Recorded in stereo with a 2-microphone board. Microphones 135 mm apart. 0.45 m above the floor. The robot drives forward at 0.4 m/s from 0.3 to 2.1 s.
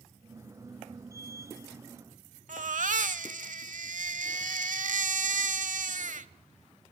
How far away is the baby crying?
About 1.0 m.